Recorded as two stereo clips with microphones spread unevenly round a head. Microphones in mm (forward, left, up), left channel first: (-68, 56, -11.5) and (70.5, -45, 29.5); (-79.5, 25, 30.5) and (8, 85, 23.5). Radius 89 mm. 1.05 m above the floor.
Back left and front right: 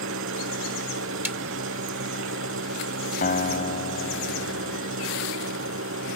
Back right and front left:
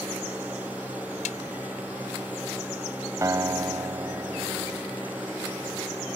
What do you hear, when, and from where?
0.0 s an engine running: 45° right
1.2 s a snare drum: 120° right
3.2 s a guitar: 95° left